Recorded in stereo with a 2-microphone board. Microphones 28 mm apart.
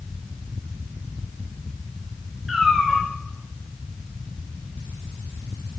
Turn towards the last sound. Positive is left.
turn(degrees=-10)  # may be behind; listen again after turning